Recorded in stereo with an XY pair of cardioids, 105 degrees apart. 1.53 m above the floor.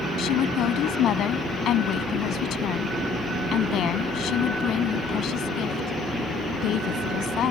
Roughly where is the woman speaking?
Ahead left.